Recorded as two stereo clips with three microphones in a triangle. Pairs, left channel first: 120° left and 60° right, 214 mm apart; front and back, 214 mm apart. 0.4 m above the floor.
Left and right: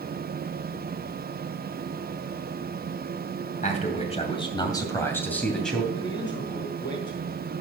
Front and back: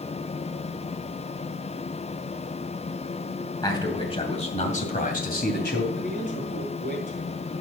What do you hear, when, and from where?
3.6 s a man speaking: 70° left, 2.5 m; by 5.8 s 30° left, 2.5 m
5.9 s a man speaking: 50° left, 3.5 m